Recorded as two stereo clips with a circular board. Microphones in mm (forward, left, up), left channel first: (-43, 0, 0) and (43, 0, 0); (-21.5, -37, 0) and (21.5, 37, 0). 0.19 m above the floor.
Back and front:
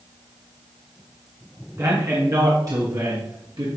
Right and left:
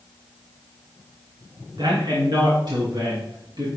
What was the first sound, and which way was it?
A man speaking, 45° left.